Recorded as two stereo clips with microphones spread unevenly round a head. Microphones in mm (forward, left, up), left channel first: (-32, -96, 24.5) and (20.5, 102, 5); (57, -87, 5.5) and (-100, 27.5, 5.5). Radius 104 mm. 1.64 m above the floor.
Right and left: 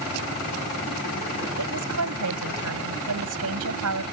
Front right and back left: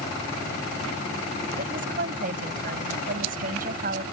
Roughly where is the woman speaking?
Left.